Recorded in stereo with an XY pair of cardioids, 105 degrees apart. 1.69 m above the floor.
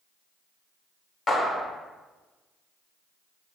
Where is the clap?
45° left, 1.1 m.